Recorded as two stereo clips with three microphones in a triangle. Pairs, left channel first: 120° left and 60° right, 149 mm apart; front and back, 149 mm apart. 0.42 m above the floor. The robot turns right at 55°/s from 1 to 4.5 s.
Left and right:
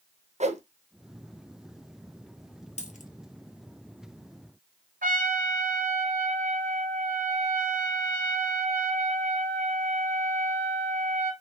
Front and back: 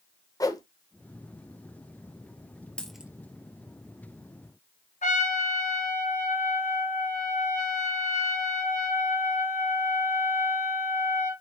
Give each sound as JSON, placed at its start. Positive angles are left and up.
{"t": 0.4, "sound": "a whoosh", "azimuth_deg": -55, "distance_m": 0.6}
{"t": 2.8, "sound": "a dropped coin", "azimuth_deg": 85, "distance_m": 0.8}
{"t": 5.0, "sound": "a trumpet", "azimuth_deg": -35, "distance_m": 1.1}